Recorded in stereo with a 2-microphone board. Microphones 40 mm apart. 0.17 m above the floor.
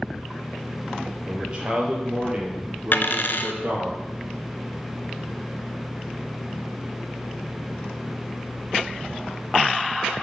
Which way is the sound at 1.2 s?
20° right (ahead or behind).